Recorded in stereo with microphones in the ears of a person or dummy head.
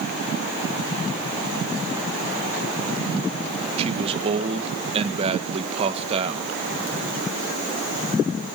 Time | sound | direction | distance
3.8 | a man speaking | 30° right (ahead or behind) | 1.7 m